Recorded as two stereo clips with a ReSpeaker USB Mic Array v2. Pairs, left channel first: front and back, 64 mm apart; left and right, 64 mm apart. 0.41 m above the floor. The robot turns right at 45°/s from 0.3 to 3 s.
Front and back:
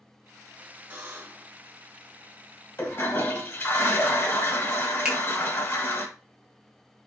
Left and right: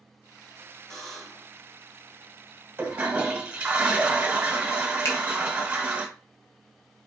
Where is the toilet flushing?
35° right, 1.2 m; by 6.0 s 25° right, 1.2 m.